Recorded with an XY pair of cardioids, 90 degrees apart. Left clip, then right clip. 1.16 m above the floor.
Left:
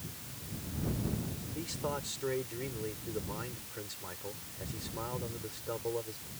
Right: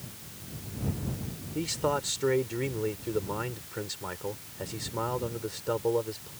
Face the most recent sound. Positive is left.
turn(degrees=-60)